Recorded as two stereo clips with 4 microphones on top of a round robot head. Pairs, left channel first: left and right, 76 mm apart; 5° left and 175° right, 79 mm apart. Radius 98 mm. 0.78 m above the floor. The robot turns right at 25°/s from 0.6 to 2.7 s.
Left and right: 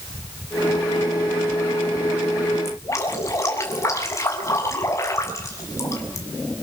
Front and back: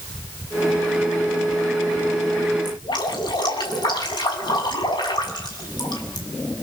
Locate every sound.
2.6 s dripping: 35° left, 7.5 m